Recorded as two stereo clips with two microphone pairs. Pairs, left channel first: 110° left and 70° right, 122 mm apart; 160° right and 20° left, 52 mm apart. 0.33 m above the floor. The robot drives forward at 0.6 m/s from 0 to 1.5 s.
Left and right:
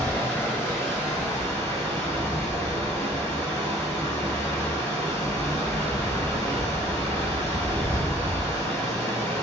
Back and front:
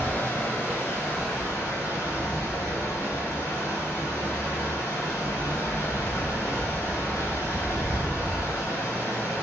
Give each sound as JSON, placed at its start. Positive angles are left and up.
{"t": 0.0, "sound": "running water", "azimuth_deg": -175, "distance_m": 1.4}